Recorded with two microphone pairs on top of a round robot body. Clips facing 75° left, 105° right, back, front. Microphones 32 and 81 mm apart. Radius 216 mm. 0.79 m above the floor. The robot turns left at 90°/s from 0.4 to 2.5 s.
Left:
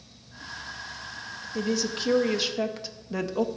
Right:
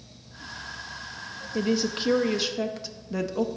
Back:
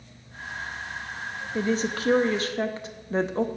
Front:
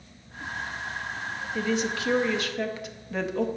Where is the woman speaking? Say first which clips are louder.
Right 2 dB, back 2 dB; 130° right, 0.7 m; by 3.5 s 145° left, 0.7 m.